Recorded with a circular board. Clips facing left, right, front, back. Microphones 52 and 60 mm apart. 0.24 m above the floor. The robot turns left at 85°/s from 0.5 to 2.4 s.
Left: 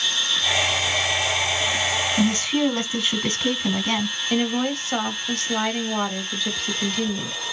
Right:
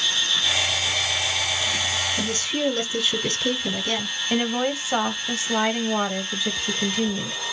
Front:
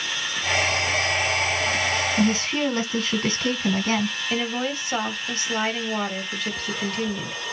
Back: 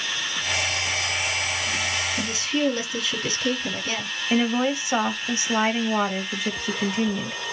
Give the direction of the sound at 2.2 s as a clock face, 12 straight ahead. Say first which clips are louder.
Left 5 dB, front 2 dB; 10 o'clock.